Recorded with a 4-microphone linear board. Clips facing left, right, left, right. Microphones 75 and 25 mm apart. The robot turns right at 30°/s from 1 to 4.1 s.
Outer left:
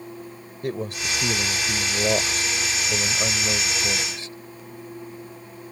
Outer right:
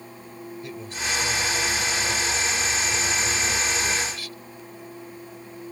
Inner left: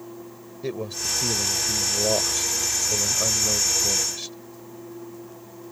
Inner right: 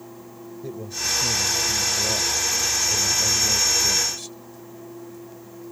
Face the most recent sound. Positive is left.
turn(degrees=155)